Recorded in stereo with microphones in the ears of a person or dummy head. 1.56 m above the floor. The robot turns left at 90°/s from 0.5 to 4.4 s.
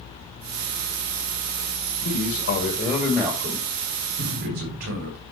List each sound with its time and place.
2.0 s a man speaking: 105° left, 2 m; by 5.2 s 110° right, 2 m
4.2 s an explosion: 45° right (ahead or behind), 3 m; by 5.0 s 65° right (ahead or behind), 3 m